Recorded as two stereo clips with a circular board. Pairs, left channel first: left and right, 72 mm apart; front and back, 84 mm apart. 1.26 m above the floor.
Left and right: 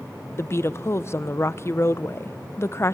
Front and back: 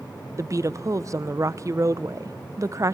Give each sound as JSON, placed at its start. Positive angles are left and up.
{"t": 0.4, "sound": "a woman speaking", "azimuth_deg": 135, "distance_m": 0.8}